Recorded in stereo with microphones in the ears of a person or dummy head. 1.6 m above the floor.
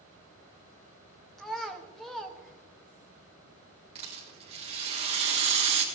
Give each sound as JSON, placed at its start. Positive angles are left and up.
{"t": 1.4, "sound": "a child speaking", "side_deg": 0, "distance_m": 1.3}
{"t": 4.0, "sound": "a rattle", "side_deg": -30, "distance_m": 1.9}